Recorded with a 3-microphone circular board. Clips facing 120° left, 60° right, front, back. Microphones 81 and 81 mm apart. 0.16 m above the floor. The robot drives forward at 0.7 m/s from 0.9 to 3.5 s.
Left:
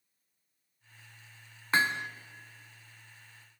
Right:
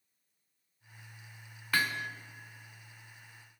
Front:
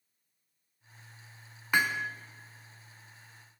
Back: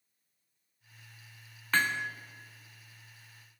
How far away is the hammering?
About 1.3 m.